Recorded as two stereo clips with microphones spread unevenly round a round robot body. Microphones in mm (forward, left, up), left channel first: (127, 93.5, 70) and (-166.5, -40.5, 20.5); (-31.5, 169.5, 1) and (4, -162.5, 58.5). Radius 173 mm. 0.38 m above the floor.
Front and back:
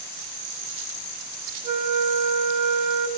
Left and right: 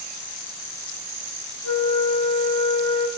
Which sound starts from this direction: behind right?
A flute, at 1.6 s.